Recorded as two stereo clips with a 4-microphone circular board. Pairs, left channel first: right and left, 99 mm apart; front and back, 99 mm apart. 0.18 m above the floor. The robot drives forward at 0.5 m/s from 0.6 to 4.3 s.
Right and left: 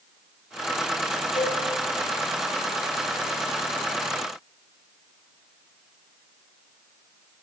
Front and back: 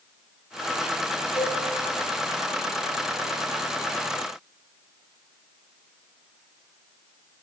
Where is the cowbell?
60° right, 2.5 m; by 1.6 s 65° right, 2.5 m.